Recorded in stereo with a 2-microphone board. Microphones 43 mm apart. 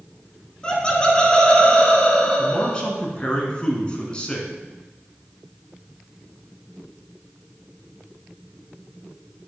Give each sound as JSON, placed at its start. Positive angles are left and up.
{"t": 0.6, "sound": "laughter", "side_deg": 20, "distance_m": 1.3}
{"t": 2.4, "sound": "a man speaking", "side_deg": 20, "distance_m": 1.4}